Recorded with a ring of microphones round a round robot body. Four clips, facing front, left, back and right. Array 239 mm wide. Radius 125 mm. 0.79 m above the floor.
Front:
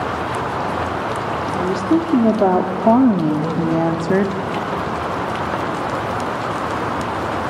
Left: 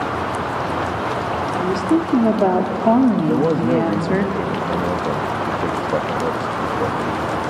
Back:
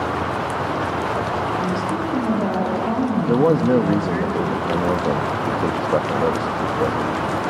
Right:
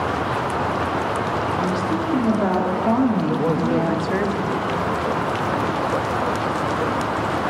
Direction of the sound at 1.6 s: 40° left.